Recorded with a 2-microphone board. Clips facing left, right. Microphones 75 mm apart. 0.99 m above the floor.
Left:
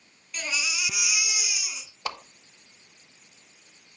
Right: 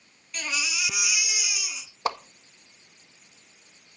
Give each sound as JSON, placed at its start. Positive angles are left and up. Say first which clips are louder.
{"t": 0.3, "sound": "a baby crying", "louder": "even", "side_deg": 5, "distance_m": 8.5}
{"t": 2.0, "sound": "a whoosh", "louder": "right 6 dB", "side_deg": -25, "distance_m": 1.3}